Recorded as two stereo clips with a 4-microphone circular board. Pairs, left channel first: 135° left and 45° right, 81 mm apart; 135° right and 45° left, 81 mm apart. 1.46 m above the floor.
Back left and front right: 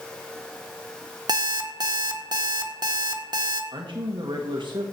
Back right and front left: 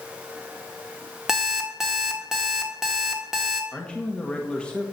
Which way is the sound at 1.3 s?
40° right.